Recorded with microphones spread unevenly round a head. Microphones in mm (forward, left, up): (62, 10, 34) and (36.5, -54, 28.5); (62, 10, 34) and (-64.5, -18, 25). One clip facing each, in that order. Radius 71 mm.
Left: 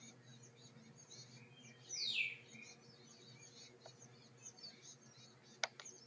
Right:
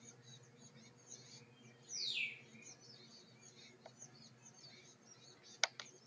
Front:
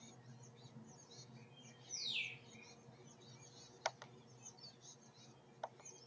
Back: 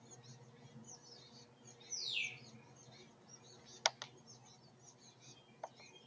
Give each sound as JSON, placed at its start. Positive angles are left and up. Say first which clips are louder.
{"t": 1.9, "sound": "a bird", "louder": "left 2 dB, back 2 dB", "azimuth_deg": 40, "distance_m": 2.0}